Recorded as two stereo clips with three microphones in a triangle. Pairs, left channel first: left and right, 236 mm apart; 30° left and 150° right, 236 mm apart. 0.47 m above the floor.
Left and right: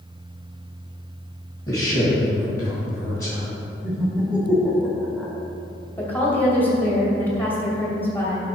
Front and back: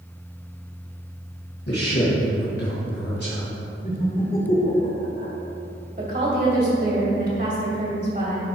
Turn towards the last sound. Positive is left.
turn(degrees=170)